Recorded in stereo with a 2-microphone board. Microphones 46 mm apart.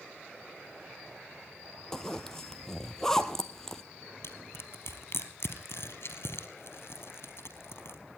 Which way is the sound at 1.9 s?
10° left (ahead or behind).